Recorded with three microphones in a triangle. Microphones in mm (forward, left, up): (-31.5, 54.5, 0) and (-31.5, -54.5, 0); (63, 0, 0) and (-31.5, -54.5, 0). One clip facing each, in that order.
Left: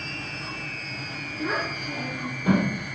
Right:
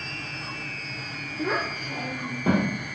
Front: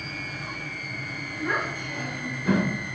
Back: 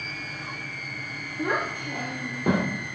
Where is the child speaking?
125° right, 1.9 m; by 2.7 s 150° right, 2.5 m.